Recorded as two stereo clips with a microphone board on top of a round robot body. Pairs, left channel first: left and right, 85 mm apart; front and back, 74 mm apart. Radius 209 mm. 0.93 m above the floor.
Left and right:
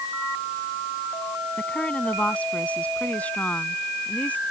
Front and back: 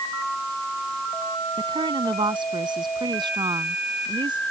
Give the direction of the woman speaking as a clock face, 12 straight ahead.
6 o'clock.